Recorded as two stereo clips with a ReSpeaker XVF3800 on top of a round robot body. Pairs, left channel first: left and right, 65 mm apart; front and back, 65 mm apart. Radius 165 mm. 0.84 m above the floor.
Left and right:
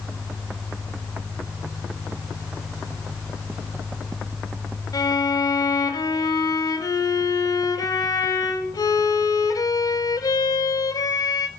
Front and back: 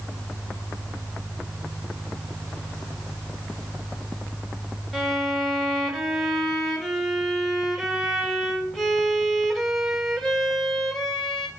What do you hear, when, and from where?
4.9 s a violin: 90° left, 1.9 m